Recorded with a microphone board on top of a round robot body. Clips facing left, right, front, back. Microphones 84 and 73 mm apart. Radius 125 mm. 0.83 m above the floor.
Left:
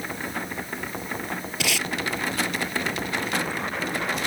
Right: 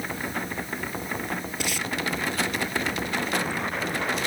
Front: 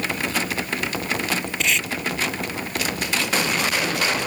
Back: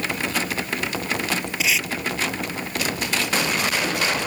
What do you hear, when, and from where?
1.6 s tape being pulled: 95° left